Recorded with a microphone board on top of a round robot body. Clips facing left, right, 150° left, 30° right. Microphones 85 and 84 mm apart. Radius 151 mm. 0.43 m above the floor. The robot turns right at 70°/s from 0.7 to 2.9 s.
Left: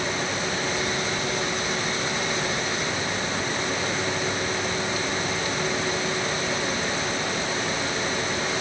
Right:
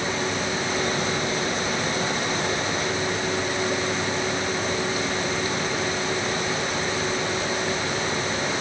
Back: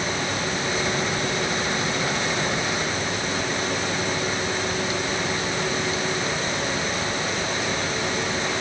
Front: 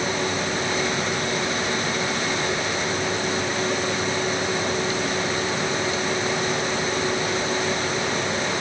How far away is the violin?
No violin in this recording.